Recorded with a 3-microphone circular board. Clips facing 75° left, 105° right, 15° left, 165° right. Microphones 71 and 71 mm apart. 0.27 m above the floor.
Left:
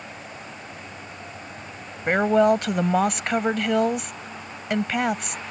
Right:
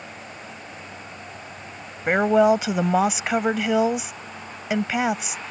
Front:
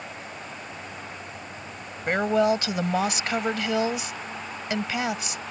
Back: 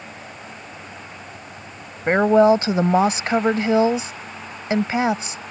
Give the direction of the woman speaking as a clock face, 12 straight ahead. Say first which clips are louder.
Right 1 dB, back 8 dB; 6 o'clock.